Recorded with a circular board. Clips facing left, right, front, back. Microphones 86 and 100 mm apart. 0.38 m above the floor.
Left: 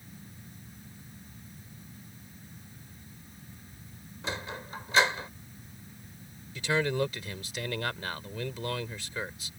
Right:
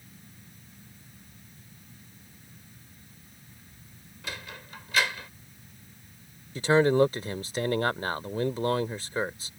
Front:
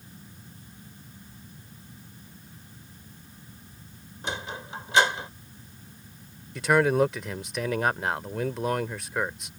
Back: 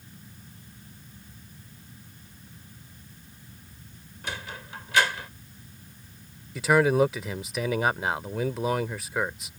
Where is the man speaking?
95° right.